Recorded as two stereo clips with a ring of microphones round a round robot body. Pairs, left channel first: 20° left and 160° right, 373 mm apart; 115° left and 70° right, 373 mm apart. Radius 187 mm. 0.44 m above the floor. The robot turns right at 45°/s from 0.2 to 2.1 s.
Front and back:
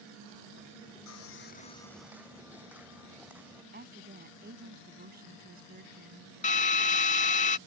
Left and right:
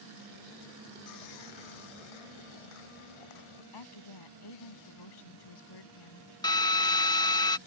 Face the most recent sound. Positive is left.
turn(degrees=50)